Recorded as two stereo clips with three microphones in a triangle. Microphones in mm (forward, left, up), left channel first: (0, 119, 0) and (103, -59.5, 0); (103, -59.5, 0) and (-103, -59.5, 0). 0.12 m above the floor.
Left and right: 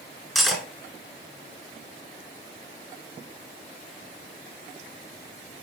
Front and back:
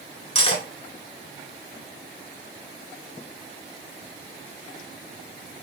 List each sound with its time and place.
0.3 s cutlery clinking: 30° left, 0.9 m